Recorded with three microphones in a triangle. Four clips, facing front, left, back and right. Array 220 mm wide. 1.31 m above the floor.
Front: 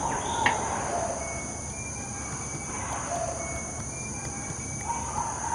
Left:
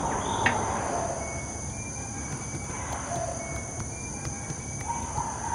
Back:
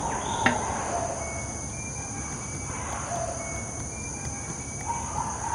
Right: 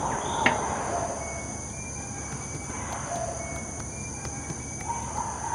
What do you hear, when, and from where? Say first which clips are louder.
0.5 s a snare drum: right 3 dB, back 2 dB; 130° right, 0.7 m